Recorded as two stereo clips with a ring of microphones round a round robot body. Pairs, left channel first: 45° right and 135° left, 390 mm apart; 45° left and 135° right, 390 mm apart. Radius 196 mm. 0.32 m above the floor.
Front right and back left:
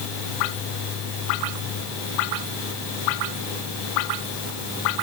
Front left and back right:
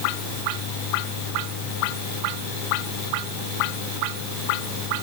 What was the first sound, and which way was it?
Only background noise.